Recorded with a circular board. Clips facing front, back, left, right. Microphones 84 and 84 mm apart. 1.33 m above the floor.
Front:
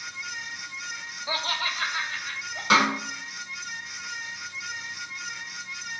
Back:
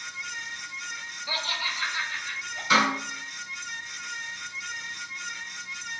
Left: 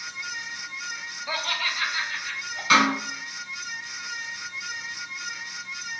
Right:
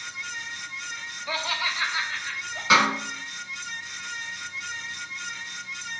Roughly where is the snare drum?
Ahead.